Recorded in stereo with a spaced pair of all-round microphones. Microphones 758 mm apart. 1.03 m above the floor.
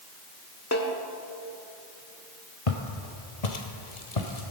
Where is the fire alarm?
I don't hear a fire alarm.